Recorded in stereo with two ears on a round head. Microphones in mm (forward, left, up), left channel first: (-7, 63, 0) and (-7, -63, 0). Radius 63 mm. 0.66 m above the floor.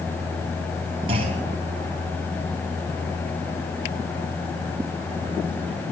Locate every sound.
1.1 s a clunk: 40° right (ahead or behind), 3.5 m